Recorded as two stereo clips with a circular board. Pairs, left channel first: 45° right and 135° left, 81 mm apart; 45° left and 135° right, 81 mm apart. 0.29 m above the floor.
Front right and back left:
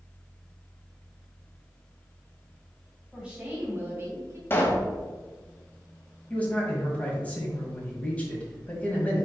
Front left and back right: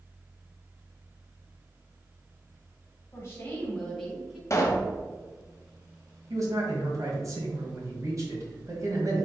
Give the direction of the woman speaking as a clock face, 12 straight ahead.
10 o'clock.